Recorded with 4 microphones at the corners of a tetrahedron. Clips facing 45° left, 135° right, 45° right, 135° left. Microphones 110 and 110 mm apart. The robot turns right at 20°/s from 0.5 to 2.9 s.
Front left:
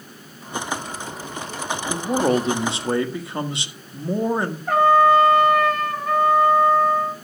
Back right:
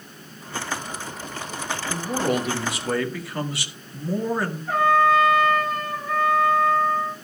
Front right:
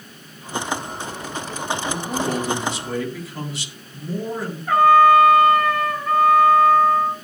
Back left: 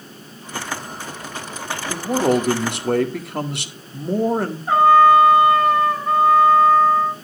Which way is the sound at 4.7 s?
70° left.